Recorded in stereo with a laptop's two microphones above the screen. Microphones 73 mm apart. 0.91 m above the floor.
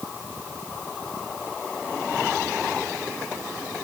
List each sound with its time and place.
Only background noise.